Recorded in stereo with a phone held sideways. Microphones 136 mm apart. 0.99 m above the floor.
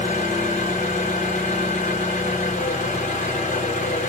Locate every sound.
0.0 s an engine running: 60° left (ahead or behind), 1.0 m